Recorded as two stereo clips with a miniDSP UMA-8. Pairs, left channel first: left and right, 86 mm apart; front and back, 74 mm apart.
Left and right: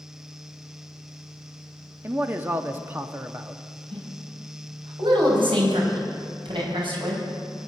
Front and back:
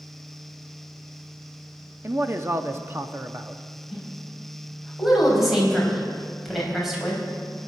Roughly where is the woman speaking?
Right.